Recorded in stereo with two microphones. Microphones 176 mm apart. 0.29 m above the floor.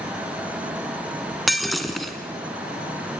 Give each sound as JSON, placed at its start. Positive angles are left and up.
{"t": 1.5, "sound": "breaking glass", "side_deg": 0, "distance_m": 1.8}